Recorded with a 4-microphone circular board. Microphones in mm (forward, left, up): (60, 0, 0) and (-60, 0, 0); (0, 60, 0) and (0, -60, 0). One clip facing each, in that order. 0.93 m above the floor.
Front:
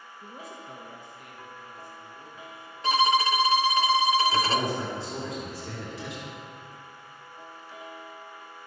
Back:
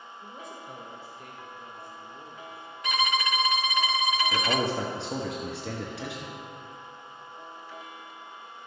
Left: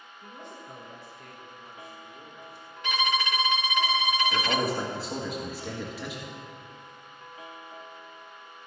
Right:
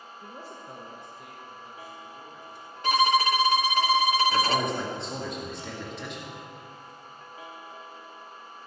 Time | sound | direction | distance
0.2 | a man speaking | 65° right | 1.0 m
2.8 | a violin | 50° right | 0.5 m
4.3 | a man speaking | 175° left | 1.4 m